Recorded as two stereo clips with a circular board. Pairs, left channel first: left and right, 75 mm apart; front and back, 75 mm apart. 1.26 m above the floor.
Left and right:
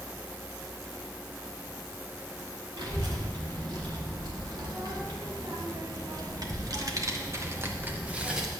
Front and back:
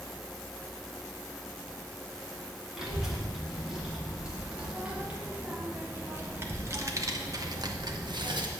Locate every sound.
2.8 s a child speaking: 95° right, 3 m; by 8.5 s 175° right, 1.0 m